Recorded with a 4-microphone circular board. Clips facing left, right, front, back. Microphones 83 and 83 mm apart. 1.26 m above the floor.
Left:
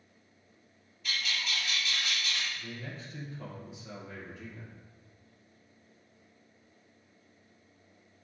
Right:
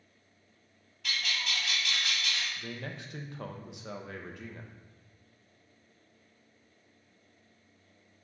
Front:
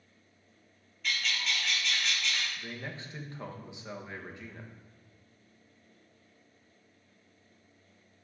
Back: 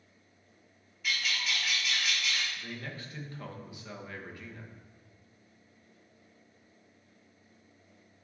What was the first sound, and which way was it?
A bird, 95° right.